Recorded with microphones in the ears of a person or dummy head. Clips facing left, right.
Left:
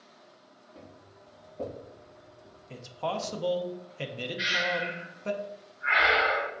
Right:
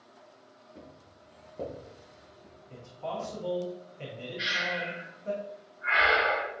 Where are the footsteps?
10° right (ahead or behind), 1.7 m; by 3.3 s 65° right (ahead or behind), 2.5 m.